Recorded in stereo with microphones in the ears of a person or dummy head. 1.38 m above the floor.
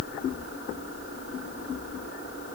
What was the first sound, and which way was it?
Only background noise.